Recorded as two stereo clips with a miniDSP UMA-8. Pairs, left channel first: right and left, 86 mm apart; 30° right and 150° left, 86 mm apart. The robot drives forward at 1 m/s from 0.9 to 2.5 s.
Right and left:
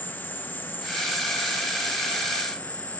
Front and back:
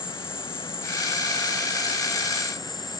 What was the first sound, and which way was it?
An insect, 95° right.